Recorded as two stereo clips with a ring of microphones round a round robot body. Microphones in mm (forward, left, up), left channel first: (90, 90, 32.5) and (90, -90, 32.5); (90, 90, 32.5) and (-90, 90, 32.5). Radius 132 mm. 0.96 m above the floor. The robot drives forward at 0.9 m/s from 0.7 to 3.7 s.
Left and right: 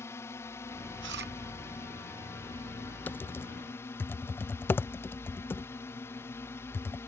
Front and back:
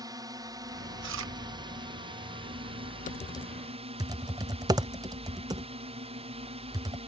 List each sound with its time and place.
0.0 s a drone: 145° left; by 7.1 s 160° left
1.0 s chewing: 135° right; by 1.3 s 150° right
3.1 s typing on a keyboard: 15° left; by 7.0 s 150° left